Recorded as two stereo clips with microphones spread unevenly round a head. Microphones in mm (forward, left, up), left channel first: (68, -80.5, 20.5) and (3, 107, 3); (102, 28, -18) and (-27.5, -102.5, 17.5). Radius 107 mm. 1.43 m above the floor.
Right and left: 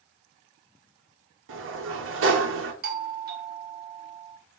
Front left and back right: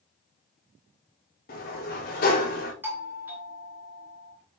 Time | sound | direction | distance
1.5 | a sliding door | 95° left | 1.9 m
2.8 | a doorbell | 140° left | 1.5 m